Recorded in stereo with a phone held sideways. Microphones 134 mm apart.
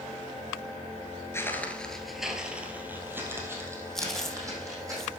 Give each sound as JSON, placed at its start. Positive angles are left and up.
{"t": 1.3, "sound": "footsteps", "side_deg": 20, "distance_m": 1.3}
{"t": 4.0, "sound": "chewing", "side_deg": 5, "distance_m": 0.9}